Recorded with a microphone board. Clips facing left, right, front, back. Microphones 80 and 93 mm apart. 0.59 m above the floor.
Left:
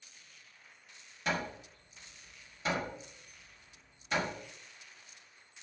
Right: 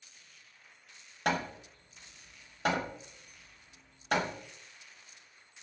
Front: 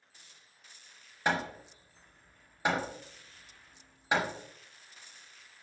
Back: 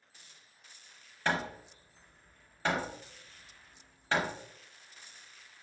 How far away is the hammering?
About 0.9 m.